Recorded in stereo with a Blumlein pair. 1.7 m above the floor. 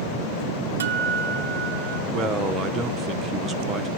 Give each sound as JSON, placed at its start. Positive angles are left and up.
{"t": 0.8, "sound": "a guitar", "azimuth_deg": -65, "distance_m": 1.1}
{"t": 2.1, "sound": "a man speaking", "azimuth_deg": -15, "distance_m": 1.7}